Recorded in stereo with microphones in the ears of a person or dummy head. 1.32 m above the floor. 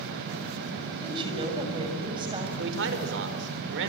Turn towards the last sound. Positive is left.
turn(degrees=-70)  # may be behind; listen again after turning